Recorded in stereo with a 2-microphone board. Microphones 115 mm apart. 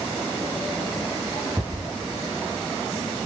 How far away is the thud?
About 7.5 m.